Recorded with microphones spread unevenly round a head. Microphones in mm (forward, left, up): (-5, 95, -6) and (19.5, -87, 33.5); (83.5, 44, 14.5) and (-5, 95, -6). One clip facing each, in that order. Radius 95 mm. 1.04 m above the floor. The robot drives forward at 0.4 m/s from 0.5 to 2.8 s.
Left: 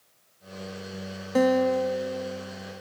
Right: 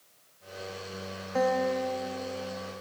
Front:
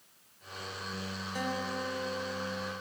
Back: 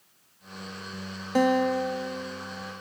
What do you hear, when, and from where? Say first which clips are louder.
1.4 s a guitar: left 6 dB, back 14 dB; 140° left, 0.5 m; by 2.7 s 160° left, 1.0 m